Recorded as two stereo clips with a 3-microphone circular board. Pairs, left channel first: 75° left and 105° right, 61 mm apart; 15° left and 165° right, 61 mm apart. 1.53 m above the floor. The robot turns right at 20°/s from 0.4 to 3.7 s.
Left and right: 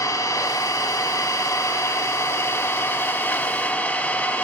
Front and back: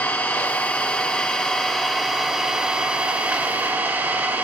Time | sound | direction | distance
0.0 | an engine running | 65° left | 3.5 m